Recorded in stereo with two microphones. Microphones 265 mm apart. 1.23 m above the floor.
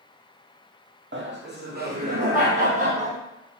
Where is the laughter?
45° right (ahead or behind), 0.5 m; by 3.2 s 30° right (ahead or behind), 1.5 m.